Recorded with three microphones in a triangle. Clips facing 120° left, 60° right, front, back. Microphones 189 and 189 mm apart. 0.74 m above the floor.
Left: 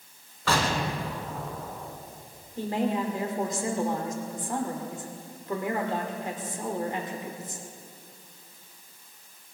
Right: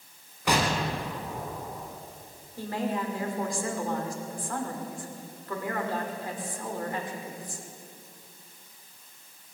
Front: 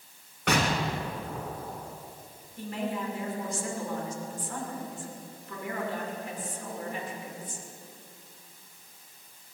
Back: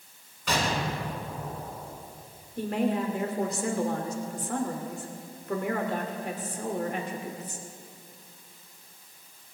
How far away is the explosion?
About 1.9 m.